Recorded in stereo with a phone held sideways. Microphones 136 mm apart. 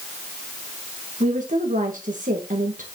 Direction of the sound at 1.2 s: 75° right (ahead or behind).